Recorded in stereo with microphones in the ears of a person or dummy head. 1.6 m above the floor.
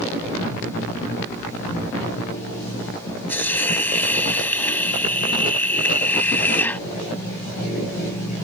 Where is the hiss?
5° left (ahead or behind).